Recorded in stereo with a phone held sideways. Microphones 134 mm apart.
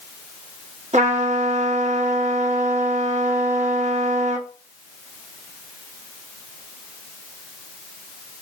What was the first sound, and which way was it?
A trumpet, 60° right (ahead or behind).